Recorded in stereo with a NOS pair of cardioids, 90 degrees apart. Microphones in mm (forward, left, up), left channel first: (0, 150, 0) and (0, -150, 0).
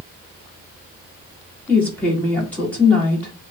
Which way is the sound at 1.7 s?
5° left.